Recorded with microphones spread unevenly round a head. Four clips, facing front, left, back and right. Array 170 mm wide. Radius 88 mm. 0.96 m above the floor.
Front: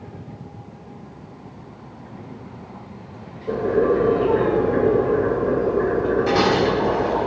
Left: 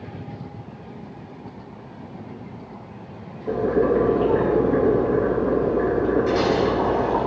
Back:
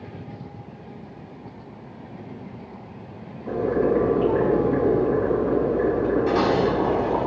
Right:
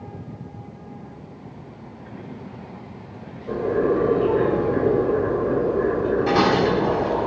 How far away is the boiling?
About 5 m.